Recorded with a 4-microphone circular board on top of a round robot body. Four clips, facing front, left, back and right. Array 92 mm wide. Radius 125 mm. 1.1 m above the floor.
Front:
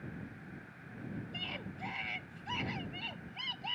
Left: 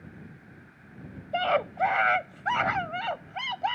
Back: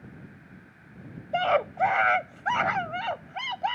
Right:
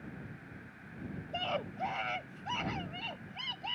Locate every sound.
1.3 s a scream: 150° left; by 3.8 s 135° left